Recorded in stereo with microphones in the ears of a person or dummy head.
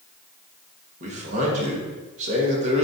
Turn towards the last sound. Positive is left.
turn(degrees=-40)  # may be behind; listen again after turning